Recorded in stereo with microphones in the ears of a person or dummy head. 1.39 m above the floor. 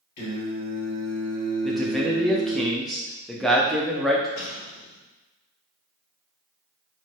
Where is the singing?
45° left (ahead or behind), 1.7 m.